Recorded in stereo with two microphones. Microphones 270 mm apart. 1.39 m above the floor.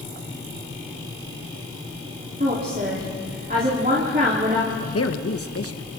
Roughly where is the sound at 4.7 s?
Left.